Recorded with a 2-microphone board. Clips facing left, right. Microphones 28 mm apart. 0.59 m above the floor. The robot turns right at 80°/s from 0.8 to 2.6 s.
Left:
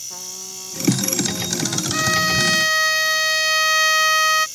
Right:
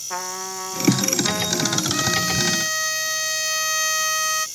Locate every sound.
0.1 s a trumpet: 105° right; by 1.8 s 25° right
1.9 s a violin: 25° left; by 4.5 s 80° left